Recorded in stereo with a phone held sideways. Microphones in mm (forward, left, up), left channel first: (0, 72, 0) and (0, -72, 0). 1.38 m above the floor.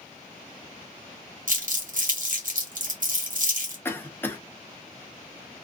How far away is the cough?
About 0.7 m.